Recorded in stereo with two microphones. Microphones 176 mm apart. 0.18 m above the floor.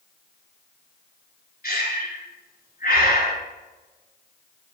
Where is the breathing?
60° left (ahead or behind), 1.7 m.